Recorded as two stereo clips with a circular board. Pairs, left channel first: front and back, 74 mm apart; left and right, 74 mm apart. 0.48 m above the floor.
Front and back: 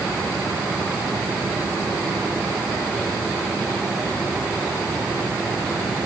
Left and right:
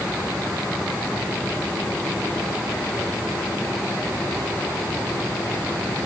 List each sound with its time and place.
Only background noise.